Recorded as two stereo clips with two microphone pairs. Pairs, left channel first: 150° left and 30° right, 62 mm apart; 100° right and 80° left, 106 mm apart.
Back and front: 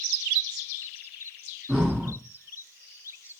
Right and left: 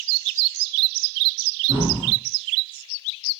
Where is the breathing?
70° left, 2 m.